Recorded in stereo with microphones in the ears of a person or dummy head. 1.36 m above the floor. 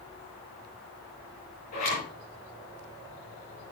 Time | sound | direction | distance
1.7 | a zipper | 45° left (ahead or behind) | 7 m